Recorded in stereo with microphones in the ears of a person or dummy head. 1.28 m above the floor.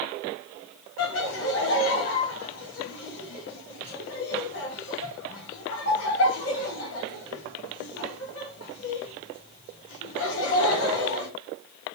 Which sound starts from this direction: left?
Laughter, at 1.0 s.